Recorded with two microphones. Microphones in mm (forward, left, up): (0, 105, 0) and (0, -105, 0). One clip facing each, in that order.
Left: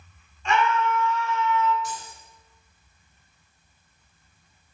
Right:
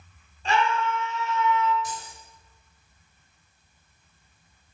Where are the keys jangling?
20° right (ahead or behind), 3.5 m.